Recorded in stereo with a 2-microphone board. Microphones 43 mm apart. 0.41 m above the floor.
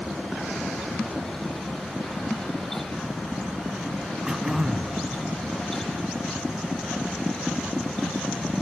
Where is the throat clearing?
15° right (ahead or behind), 1.5 m.